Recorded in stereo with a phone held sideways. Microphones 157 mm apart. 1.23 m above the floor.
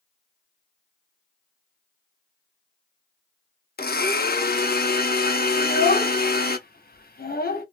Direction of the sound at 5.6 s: 65° left (ahead or behind).